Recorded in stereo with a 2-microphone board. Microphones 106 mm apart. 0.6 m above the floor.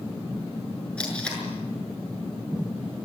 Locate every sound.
1.0 s tape being pulled: 10° left (ahead or behind), 7 m